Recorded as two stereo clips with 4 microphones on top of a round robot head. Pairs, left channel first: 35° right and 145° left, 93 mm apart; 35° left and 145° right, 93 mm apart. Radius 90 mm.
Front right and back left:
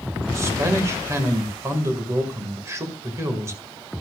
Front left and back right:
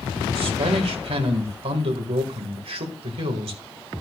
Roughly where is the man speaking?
Behind right.